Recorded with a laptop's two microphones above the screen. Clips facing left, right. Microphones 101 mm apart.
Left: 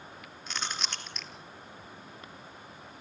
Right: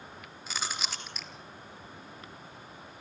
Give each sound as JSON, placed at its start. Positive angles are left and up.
{"t": 0.5, "sound": "chewing", "side_deg": -5, "distance_m": 3.5}